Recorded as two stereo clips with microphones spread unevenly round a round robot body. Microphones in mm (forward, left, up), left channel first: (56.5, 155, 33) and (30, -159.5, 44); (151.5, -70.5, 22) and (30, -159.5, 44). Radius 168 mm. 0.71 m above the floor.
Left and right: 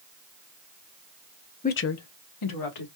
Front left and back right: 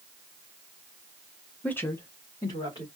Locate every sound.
1.6 s a woman speaking: 75° left, 0.5 m; by 2.9 s 105° left, 1.9 m